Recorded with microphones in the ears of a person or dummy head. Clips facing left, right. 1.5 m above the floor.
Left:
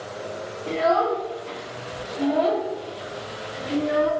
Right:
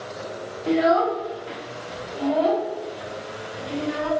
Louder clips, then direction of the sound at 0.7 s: Right 2 dB; 30° right (ahead or behind).